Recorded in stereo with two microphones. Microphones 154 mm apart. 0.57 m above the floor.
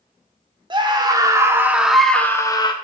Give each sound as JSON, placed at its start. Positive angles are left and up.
{"t": 0.7, "sound": "a scream", "side_deg": -30, "distance_m": 1.2}